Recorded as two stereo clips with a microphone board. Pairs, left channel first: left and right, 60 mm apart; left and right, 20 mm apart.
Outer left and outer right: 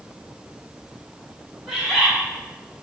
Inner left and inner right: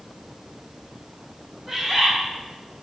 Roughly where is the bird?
Centre.